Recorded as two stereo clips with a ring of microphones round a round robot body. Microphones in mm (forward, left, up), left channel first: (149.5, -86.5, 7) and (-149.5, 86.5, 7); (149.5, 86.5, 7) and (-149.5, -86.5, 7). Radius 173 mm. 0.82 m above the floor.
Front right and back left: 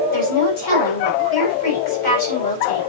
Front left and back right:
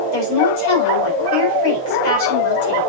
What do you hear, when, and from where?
0.1 s a woman speaking: 20° left, 4.5 m